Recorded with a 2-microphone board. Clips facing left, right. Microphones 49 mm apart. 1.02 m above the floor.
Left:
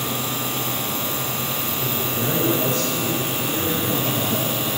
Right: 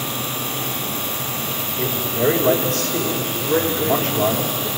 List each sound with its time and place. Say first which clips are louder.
1.8 s a man speaking: right 7 dB; 65° right (ahead or behind), 4.5 m
3.3 s a man speaking: right 4 dB; 80° right, 5 m